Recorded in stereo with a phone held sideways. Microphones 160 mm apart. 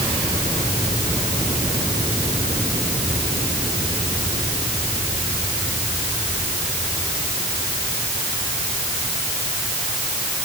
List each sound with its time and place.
Only background noise.